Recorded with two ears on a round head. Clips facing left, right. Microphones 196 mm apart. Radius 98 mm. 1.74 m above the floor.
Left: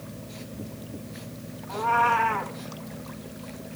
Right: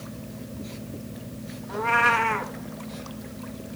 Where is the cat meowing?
35° right (ahead or behind), 1.3 m.